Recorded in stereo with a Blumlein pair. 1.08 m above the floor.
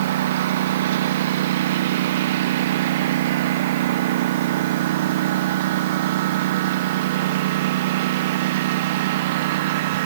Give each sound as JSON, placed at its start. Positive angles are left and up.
{"t": 0.0, "sound": "a lawn mower", "azimuth_deg": -55}